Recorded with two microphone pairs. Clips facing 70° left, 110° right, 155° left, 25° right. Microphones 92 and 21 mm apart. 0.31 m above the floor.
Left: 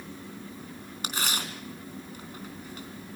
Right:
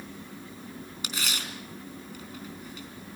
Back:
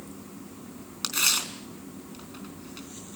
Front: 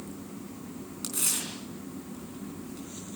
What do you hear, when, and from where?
1.0 s tearing paper: 110° left, 4 m